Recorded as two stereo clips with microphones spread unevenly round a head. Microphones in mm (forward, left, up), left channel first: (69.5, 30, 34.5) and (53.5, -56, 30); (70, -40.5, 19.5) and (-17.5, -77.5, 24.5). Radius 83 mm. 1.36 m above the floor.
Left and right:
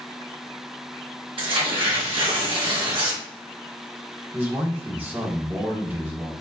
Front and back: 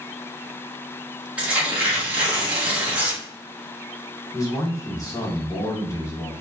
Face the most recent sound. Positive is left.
turn(degrees=-35)